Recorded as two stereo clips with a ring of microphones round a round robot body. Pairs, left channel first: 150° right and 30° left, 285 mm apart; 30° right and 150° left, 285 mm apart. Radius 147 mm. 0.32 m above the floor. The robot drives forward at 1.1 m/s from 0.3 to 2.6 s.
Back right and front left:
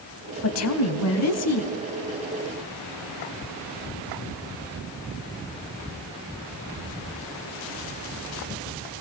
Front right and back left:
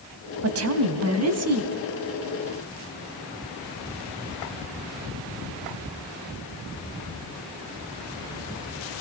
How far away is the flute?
No flute in this recording.